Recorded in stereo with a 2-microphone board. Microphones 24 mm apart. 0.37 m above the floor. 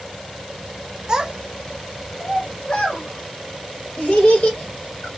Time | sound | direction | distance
1.1 | a child speaking | 30° right (ahead or behind) | 0.7 m